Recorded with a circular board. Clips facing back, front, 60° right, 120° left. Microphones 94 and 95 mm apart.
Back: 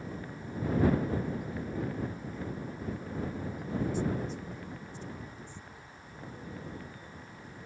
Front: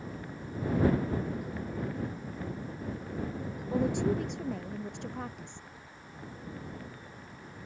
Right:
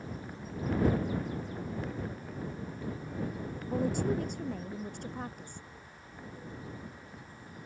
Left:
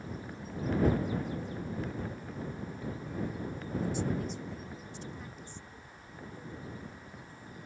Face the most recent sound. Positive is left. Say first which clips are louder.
# front 4 dB, right 3 dB
turn(degrees=-20)